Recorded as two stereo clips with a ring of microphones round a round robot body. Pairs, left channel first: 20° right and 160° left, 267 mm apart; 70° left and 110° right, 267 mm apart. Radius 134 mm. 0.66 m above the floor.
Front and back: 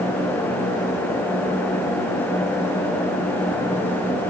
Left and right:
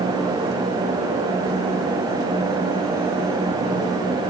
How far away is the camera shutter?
I don't hear a camera shutter.